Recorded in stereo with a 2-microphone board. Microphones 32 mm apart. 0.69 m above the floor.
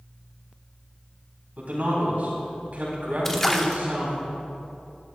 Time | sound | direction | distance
1.6 | a man speaking | 55° right (ahead or behind) | 4.5 m
3.2 | a splash | 15° left (ahead or behind) | 0.9 m